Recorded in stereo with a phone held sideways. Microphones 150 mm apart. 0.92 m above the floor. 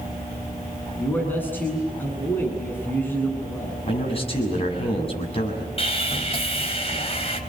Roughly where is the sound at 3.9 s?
Left.